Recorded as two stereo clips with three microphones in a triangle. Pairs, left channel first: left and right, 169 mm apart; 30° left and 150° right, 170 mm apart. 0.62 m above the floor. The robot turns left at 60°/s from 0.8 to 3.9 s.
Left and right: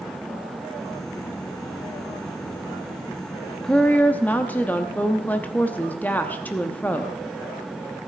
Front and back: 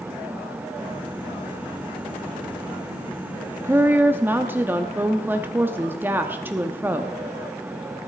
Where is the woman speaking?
170° left, 0.8 m; by 7.2 s 155° left, 0.8 m.